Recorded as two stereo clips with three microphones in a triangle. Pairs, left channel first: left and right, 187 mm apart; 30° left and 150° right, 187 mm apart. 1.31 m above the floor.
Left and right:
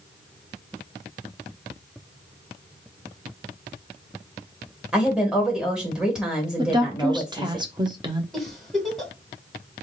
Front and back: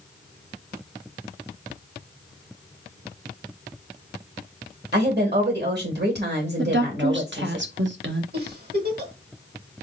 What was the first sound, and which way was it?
A woman speaking, 175° right.